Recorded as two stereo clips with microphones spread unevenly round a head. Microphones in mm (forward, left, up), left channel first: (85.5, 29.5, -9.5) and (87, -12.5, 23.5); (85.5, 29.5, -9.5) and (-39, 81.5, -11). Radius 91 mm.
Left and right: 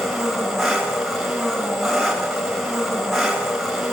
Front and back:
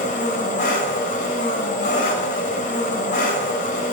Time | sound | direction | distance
0.0 | an engine running | straight ahead | 5 m